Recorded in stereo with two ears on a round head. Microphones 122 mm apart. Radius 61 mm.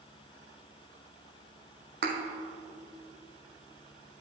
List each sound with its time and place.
2.0 s a thud: 80° right, 2 m